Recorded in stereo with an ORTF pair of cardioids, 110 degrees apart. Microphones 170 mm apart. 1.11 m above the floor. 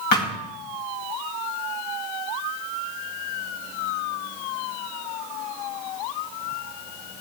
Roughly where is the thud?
Left.